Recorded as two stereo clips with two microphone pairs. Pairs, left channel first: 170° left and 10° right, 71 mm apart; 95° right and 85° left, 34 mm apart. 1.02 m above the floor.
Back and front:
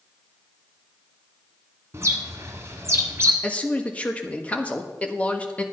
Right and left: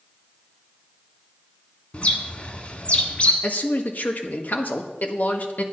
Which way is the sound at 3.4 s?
115° right.